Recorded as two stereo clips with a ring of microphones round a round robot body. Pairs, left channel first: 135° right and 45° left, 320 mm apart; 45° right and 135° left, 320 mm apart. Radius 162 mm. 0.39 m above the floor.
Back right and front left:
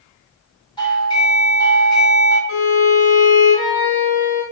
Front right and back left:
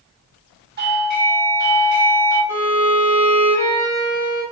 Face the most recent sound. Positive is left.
turn(degrees=-125)